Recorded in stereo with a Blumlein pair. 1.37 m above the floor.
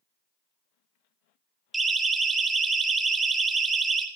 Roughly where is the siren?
Ahead.